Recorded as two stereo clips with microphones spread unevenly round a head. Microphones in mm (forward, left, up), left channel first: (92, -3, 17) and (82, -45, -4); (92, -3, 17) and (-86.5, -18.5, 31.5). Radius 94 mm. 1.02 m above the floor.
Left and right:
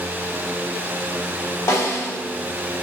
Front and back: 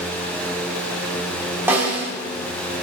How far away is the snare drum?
About 3.5 m.